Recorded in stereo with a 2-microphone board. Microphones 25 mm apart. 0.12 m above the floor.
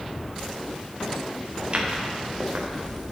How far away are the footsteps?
About 3.5 m.